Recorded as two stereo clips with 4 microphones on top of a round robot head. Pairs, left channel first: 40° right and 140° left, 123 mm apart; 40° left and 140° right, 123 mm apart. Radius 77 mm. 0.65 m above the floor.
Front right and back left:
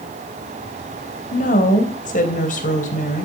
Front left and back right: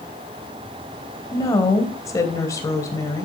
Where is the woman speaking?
25° right, 3 m.